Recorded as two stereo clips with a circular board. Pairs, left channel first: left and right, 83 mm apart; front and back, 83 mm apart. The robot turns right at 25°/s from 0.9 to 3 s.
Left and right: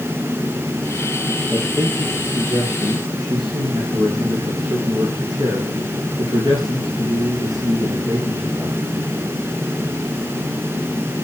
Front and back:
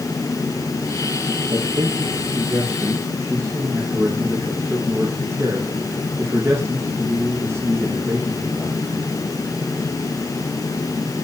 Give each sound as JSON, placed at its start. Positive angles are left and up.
{"t": 1.5, "sound": "a man speaking", "azimuth_deg": -160, "distance_m": 6.0}